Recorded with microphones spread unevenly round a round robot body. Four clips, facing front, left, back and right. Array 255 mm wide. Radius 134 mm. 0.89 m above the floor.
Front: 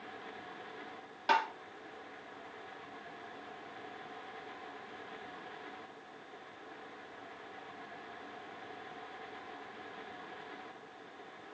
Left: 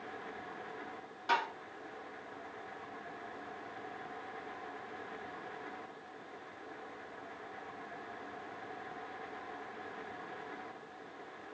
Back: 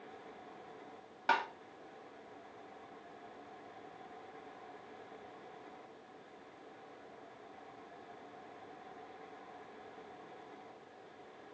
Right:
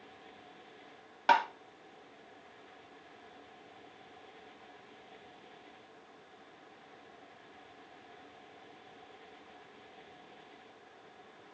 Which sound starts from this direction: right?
Tapping, at 1.3 s.